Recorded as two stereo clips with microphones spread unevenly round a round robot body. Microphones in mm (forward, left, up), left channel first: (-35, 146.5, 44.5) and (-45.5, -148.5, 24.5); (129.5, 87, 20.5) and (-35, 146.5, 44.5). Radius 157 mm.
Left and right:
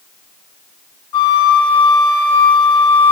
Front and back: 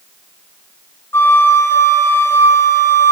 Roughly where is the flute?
Ahead left.